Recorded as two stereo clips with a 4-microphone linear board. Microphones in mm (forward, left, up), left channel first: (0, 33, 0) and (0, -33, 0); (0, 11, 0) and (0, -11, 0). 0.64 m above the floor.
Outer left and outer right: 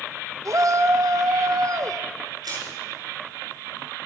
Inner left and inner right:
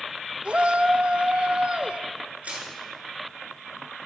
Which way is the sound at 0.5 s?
55° right (ahead or behind).